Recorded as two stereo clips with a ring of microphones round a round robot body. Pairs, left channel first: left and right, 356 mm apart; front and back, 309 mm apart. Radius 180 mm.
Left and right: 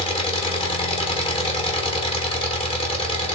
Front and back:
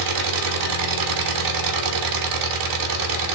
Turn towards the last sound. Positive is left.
turn(degrees=165)